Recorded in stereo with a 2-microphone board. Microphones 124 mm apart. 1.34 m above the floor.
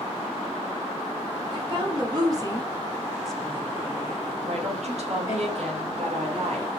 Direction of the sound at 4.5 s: 60° right (ahead or behind).